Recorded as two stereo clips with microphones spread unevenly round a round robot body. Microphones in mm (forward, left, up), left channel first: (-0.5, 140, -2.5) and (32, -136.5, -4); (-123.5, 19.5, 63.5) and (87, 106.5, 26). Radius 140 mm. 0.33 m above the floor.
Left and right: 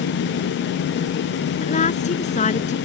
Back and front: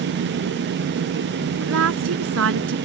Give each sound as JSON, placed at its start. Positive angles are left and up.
{"t": 1.6, "sound": "a woman speaking", "azimuth_deg": 30}